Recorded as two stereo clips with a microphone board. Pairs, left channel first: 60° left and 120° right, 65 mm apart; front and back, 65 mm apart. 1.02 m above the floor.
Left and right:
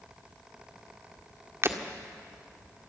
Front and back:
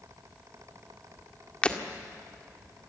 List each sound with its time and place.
1.6 s breaking glass: 70° right, 1.7 m